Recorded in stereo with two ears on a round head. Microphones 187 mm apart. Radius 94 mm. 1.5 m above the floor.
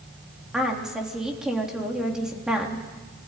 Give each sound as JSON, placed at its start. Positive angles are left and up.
{"t": 0.5, "sound": "a woman speaking", "side_deg": -5, "distance_m": 3.0}